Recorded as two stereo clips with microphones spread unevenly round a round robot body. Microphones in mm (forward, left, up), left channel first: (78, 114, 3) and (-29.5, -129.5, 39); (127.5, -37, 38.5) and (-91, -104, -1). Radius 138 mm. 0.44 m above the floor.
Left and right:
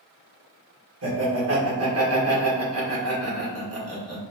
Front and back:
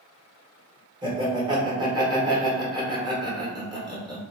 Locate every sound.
1.0 s laughter: 110° right, 1.1 m